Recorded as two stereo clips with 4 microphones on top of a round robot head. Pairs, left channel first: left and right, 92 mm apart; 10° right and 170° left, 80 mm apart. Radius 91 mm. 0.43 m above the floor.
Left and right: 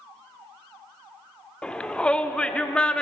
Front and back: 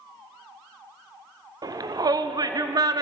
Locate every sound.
1.6 s a shout: 165° left, 1.0 m